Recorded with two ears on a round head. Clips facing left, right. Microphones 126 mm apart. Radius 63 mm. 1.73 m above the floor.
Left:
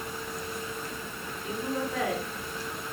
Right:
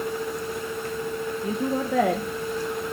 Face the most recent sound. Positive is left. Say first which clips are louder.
# right 4 dB
turn(degrees=-40)  # may be behind; listen again after turning